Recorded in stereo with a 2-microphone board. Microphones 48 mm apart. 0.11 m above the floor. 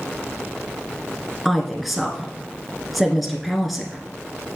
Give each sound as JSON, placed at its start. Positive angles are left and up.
{"t": 1.4, "sound": "a woman speaking", "side_deg": 0, "distance_m": 1.2}